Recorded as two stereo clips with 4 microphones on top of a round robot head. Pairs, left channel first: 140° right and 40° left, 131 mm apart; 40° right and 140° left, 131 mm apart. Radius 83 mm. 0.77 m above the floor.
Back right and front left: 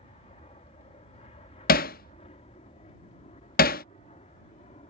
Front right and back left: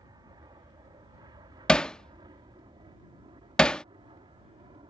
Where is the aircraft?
170° right; by 4.9 s 175° right.